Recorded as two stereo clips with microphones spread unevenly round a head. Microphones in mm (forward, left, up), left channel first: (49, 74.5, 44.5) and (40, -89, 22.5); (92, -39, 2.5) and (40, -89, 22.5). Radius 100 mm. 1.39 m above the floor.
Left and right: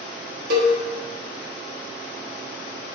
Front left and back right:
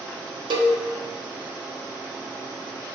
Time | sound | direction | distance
0.5 | a cowbell | 130° right | 1.0 m